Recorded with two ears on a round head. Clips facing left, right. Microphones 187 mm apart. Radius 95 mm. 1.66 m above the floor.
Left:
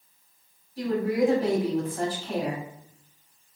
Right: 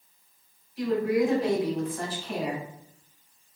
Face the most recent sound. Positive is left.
turn(degrees=35)  # may be behind; listen again after turning